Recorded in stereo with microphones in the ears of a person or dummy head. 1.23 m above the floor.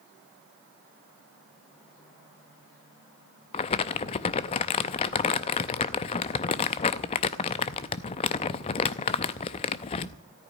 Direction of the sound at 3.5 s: 30° left (ahead or behind).